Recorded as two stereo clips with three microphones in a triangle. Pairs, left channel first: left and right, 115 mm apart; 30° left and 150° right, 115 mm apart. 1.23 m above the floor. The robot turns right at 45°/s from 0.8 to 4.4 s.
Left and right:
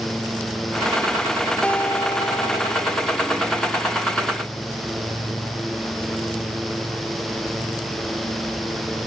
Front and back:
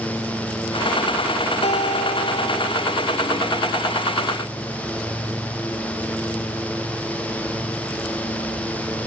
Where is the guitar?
10° left; by 3.0 s 75° left.